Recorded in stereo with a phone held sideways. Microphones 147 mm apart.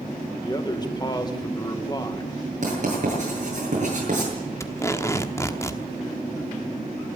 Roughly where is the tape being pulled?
Centre.